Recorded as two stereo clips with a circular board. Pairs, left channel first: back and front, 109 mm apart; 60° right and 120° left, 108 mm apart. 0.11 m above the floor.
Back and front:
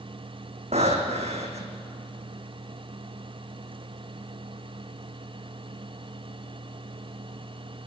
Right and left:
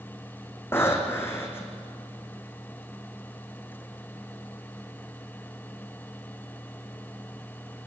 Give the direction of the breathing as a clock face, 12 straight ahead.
12 o'clock.